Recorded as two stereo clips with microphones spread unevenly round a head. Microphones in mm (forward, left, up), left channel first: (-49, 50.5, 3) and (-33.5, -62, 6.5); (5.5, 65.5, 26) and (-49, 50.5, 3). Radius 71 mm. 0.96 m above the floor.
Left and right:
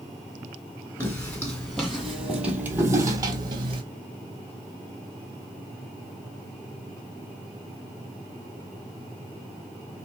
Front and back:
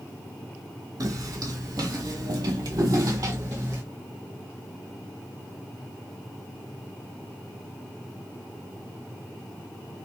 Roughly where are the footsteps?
Behind.